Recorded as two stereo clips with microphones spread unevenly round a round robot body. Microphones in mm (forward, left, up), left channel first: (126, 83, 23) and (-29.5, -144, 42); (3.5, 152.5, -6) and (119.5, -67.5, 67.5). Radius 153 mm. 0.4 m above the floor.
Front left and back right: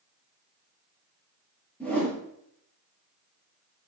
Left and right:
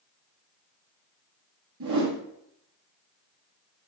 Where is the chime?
I don't hear a chime.